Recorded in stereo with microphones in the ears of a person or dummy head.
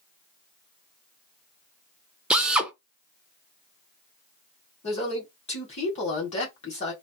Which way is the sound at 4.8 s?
40° left (ahead or behind).